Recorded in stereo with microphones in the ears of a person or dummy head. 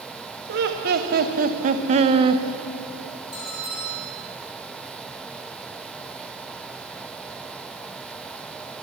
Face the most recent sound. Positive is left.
turn(degrees=20)  # may be behind; listen again after turning